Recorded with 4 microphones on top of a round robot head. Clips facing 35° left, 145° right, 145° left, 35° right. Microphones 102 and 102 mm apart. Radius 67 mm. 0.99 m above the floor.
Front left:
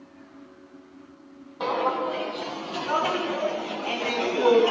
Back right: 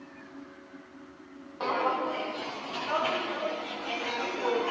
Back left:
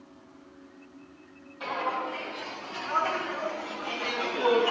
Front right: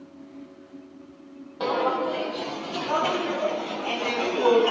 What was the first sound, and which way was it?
Footsteps, 40° right.